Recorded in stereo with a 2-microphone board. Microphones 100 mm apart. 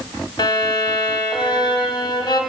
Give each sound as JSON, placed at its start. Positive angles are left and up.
{"t": 0.4, "sound": "a violin", "side_deg": 45, "distance_m": 2.5}